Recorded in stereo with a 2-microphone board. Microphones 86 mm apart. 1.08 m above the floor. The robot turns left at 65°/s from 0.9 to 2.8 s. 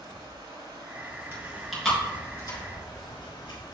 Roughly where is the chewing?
Right.